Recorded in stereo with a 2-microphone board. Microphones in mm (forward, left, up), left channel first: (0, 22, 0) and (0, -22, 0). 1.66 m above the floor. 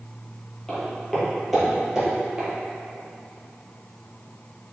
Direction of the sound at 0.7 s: 10° left (ahead or behind).